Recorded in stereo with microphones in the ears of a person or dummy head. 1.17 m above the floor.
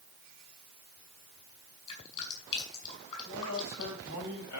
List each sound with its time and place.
1.9 s dripping: 35° left (ahead or behind), 6.5 m
3.2 s a man speaking: 80° left, 5 m